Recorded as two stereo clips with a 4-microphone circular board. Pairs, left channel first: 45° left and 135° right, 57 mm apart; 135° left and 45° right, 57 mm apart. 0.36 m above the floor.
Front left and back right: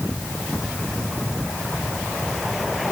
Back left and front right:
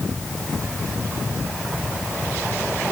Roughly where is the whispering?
No whispering in this recording.